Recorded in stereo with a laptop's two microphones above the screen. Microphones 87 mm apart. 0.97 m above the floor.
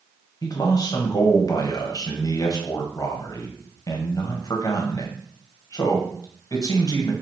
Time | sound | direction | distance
0.4 | a man speaking | 45° left (ahead or behind) | 0.9 m